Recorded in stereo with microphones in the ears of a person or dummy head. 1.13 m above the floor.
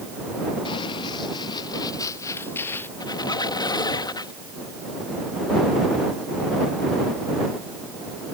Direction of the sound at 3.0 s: 15° left (ahead or behind).